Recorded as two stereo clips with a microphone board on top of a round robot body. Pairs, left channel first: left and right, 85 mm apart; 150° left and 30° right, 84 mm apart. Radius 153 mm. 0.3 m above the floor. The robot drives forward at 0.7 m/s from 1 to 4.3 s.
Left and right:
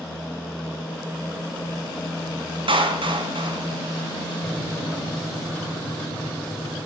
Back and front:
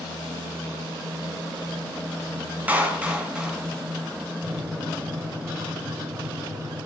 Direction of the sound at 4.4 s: 10° left.